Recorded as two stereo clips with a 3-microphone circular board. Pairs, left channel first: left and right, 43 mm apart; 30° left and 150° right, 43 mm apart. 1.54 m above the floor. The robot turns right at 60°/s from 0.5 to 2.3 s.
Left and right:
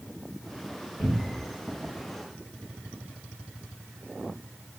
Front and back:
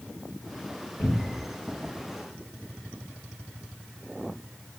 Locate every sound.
1.0 s a cupboard door: 55° left, 1.6 m; by 1.5 s 85° left, 1.6 m